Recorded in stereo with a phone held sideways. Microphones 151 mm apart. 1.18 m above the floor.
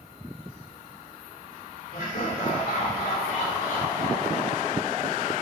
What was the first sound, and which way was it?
Laughter, 75° left (ahead or behind).